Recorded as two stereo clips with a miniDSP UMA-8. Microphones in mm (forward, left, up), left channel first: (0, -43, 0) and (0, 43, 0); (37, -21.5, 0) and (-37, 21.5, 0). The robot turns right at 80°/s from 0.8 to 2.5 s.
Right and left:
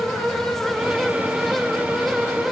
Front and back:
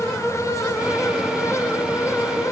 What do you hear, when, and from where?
Only background noise.